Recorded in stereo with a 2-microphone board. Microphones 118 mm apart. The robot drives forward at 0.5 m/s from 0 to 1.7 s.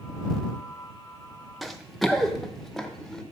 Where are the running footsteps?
Centre (ahead or behind), 1.1 m; by 3.2 s 5° left (ahead or behind), 1.9 m.